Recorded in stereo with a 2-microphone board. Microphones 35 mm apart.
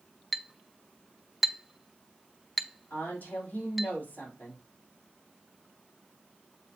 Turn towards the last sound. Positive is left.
turn(degrees=55)  # may be behind; listen again after turning